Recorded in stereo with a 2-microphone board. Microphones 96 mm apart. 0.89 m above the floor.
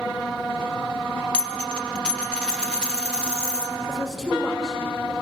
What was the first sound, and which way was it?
A dropped coin, 10° left (ahead or behind).